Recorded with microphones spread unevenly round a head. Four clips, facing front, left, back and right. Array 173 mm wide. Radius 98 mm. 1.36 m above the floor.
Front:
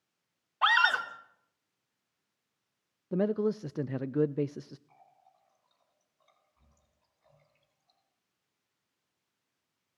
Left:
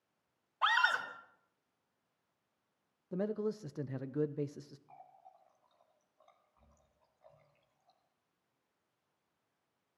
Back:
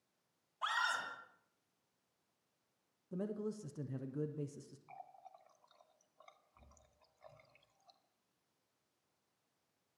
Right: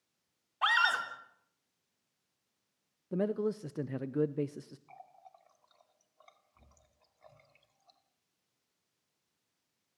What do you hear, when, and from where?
0.6 s a scream: 20° right, 3.5 m
3.1 s a man speaking: 20° right, 0.6 m
4.9 s a running tap: 120° right, 2.5 m